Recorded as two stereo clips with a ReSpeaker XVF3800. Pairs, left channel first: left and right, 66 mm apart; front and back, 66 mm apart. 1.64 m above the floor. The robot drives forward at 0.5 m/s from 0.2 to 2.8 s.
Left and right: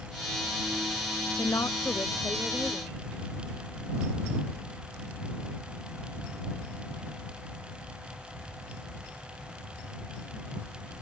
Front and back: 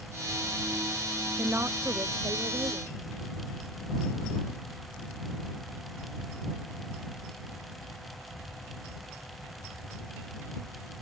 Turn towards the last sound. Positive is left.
turn(degrees=155)